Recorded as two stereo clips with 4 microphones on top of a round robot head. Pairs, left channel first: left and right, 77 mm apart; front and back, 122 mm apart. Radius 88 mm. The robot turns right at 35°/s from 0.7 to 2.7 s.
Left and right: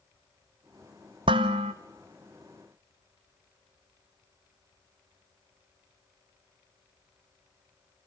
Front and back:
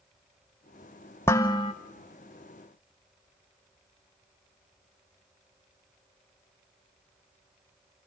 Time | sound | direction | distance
1.3 | dishes clattering | 75° right | 0.8 m